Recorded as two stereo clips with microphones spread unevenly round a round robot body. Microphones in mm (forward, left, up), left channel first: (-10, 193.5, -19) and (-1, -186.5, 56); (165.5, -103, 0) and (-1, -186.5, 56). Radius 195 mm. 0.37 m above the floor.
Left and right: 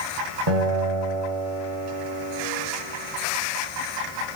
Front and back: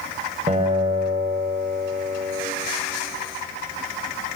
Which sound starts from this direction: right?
A guitar, at 0.5 s.